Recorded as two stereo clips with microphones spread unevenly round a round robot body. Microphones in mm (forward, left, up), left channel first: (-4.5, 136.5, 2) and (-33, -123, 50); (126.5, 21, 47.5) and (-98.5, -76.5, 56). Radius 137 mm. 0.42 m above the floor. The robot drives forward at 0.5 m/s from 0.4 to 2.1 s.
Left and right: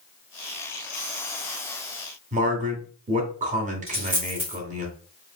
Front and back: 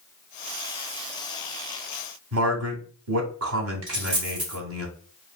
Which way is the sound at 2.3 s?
160° right.